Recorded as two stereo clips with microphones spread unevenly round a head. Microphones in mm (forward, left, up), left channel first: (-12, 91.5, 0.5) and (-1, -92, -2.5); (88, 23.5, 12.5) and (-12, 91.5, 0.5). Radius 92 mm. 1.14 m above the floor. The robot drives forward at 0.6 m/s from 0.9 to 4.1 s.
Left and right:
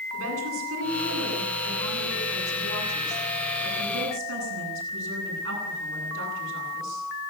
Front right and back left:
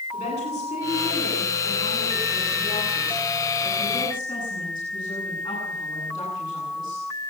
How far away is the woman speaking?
About 10 m.